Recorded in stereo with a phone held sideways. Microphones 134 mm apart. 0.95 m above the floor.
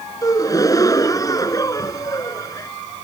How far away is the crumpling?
No crumpling in this recording.